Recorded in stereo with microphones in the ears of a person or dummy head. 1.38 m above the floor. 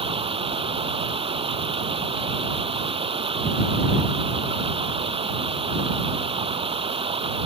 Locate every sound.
0.0 s running water: 35° right (ahead or behind)